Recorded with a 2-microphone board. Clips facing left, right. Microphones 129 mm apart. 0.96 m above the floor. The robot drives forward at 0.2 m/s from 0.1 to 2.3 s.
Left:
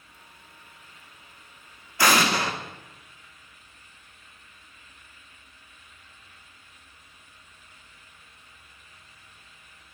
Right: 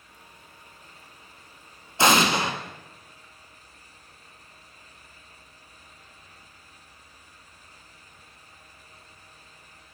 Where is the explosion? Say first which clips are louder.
Right 2 dB; 25° right (ahead or behind), 0.6 m; by 2.5 s 20° right (ahead or behind), 0.6 m.